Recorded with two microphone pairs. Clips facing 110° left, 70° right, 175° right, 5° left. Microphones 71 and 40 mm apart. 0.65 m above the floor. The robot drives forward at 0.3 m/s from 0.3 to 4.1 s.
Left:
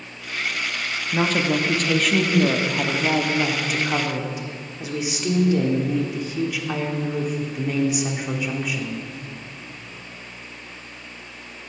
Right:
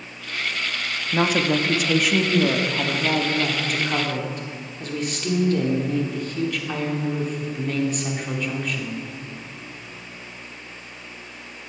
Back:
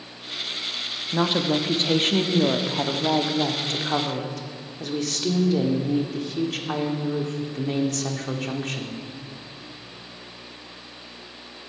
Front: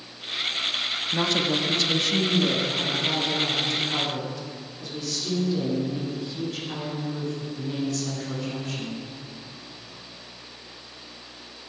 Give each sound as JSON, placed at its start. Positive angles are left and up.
{"t": 1.1, "sound": "a woman speaking", "azimuth_deg": -130, "distance_m": 0.5}